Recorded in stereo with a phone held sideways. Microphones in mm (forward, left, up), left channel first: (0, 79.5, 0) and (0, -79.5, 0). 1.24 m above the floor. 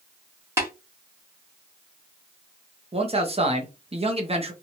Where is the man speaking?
40° right (ahead or behind), 0.8 m.